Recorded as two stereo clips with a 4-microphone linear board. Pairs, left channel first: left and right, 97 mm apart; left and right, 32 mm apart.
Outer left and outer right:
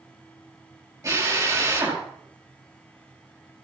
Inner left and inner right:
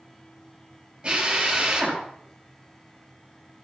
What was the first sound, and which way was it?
A drill, 30° right (ahead or behind).